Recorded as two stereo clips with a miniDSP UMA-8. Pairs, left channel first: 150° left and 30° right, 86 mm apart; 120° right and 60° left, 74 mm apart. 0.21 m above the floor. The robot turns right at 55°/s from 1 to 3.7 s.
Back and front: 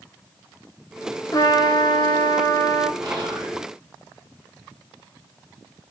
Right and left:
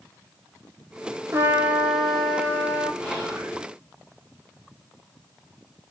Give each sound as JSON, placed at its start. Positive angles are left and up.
{"t": 1.3, "sound": "a trumpet", "azimuth_deg": 110, "distance_m": 1.1}
{"t": 3.0, "sound": "whispering", "azimuth_deg": -50, "distance_m": 2.0}